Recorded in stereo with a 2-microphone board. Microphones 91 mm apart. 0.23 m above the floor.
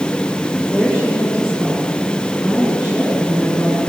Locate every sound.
0.7 s a woman speaking: 5° left (ahead or behind), 3.5 m